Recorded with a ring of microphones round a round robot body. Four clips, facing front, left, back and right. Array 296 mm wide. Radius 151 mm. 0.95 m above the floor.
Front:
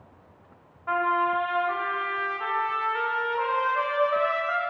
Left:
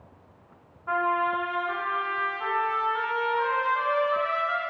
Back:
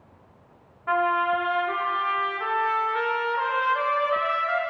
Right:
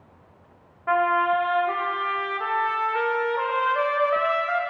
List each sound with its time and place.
0.9 s a trumpet: 100° right, 1.6 m